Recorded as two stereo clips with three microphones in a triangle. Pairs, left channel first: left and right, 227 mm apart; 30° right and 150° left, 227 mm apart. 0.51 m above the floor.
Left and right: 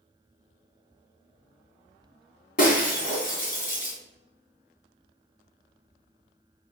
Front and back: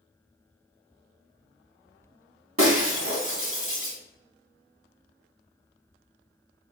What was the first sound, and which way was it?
Breaking glass, 140° left.